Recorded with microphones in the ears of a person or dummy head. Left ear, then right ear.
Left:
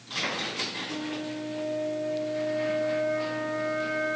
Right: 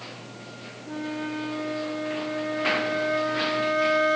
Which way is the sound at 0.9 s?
45° right (ahead or behind).